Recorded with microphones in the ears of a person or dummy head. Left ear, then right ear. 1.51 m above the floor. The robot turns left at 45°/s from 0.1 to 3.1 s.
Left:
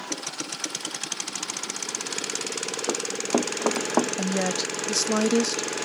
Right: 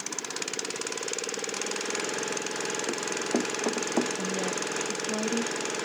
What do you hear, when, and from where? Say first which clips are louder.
2.9 s running footsteps: left 6 dB; 60° left (ahead or behind); by 4.1 s 45° left (ahead or behind)
4.2 s a woman speaking: left 4 dB; 70° left (ahead or behind)